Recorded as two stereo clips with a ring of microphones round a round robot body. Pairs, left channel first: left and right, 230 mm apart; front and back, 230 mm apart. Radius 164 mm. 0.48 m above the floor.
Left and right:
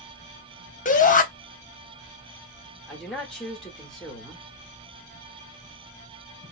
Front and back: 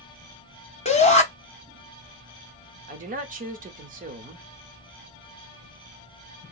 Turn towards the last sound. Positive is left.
turn(degrees=175)